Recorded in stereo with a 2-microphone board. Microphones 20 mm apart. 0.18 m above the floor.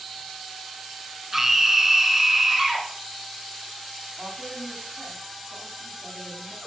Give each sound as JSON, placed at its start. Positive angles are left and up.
{"t": 1.3, "sound": "a scream", "side_deg": -25, "distance_m": 2.0}
{"t": 4.2, "sound": "a woman speaking", "side_deg": -30, "distance_m": 9.0}